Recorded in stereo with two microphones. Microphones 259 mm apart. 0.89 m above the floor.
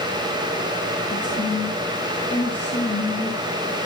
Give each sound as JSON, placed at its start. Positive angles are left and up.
{"t": 1.1, "sound": "a woman speaking", "side_deg": 45, "distance_m": 2.5}